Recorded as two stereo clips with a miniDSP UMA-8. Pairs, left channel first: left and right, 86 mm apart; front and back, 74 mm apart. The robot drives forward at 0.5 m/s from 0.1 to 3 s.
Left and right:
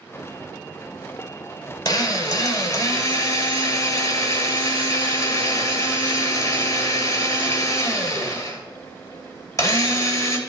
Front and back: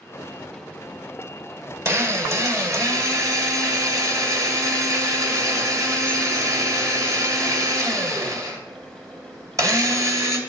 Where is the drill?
130° left, 2 m; by 10.4 s 140° left, 2.5 m.